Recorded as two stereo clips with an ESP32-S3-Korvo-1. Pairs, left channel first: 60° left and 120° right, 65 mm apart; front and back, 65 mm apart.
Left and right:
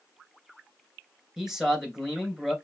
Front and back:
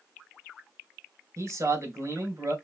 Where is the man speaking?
160° left, 3 m.